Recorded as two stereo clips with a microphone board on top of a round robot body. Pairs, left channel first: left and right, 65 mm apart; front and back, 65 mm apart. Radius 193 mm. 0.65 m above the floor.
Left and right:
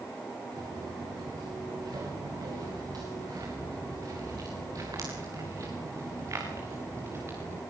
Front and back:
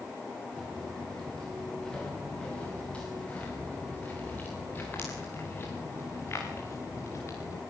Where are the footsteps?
80° right, 8 m; by 7.6 s 40° right, 6 m.